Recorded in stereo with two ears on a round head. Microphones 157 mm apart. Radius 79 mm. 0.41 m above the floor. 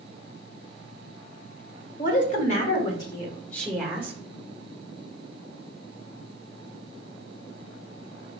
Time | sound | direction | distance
2.0 | a woman speaking | 50° left (ahead or behind) | 1.9 m